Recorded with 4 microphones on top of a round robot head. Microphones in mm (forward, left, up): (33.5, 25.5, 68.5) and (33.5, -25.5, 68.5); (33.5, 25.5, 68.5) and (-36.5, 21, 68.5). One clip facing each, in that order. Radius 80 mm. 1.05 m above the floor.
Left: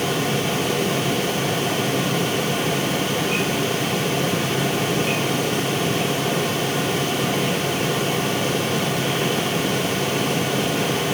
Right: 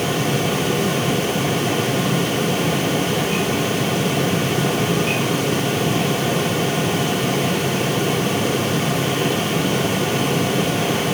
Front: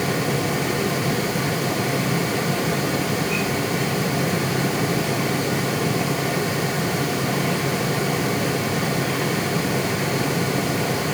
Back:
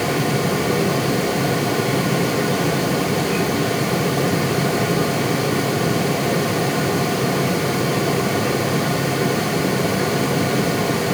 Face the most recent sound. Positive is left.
No sound to turn to.